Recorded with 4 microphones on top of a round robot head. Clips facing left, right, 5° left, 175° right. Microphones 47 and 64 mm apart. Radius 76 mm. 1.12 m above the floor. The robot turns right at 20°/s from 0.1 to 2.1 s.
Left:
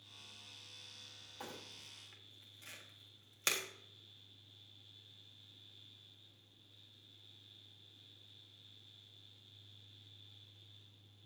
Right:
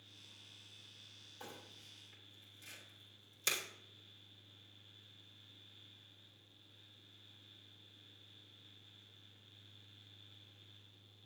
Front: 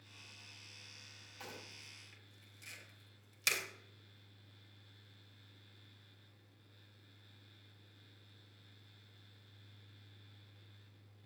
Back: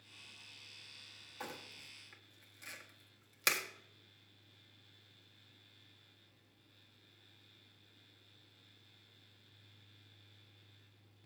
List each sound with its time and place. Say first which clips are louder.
1.4 s crumpling: left 3 dB, back 4 dB; 125° left, 1.6 m; by 3.6 s 135° left, 1.6 m